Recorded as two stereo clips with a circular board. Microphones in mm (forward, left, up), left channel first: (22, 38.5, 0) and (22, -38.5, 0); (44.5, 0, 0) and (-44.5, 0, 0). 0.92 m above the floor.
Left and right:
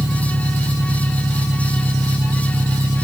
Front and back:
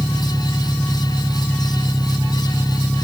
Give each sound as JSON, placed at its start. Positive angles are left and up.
{"t": 0.0, "sound": "an engine running", "azimuth_deg": -85}